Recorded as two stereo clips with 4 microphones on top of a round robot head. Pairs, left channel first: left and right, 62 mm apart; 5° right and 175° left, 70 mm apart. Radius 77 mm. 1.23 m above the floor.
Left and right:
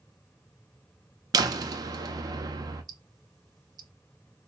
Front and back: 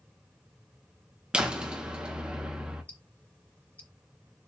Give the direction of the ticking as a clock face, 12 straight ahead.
3 o'clock.